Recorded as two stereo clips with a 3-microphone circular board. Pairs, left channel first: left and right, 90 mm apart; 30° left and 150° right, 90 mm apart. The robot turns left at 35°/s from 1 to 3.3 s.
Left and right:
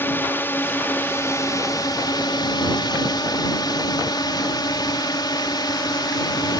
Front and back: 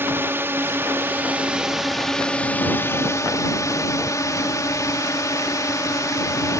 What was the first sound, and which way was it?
A drone, 150° left.